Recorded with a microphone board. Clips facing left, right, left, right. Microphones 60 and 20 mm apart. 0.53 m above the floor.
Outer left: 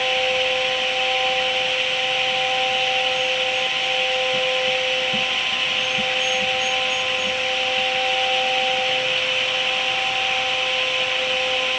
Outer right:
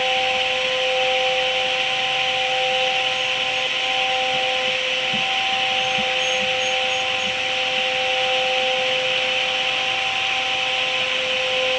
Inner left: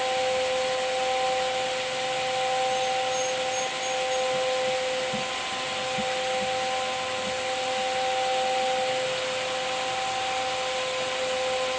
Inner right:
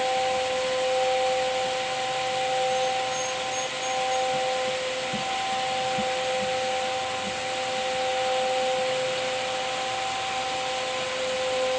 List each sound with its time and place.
Only background noise.